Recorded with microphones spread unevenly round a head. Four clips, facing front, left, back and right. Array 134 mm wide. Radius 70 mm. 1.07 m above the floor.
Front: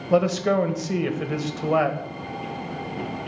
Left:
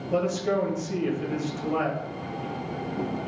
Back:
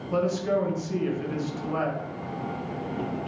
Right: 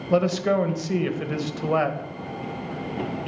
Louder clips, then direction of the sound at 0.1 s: Right 4 dB, front 5 dB; 50° right.